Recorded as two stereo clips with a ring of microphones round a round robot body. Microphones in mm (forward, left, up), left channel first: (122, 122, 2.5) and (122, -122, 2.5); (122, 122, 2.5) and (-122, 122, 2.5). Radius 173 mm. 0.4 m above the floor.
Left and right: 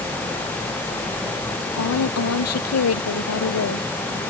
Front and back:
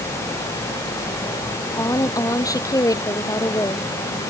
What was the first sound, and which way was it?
A woman speaking, 75° left.